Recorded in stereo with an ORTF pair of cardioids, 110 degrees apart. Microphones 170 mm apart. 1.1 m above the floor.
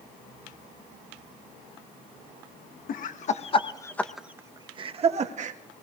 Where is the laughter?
60° left, 1.4 m; by 5.6 s 50° right, 1.8 m.